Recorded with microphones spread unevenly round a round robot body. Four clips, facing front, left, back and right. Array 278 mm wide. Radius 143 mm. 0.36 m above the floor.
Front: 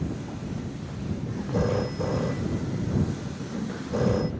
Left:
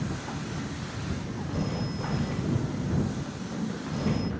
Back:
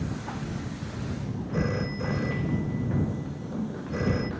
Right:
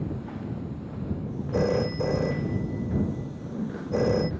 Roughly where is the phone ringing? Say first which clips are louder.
Right 9 dB, front 4 dB; right.